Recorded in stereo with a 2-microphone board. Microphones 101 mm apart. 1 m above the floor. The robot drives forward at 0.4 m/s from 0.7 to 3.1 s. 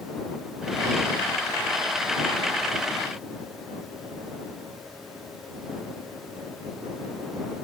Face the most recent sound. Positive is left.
No sound to turn to.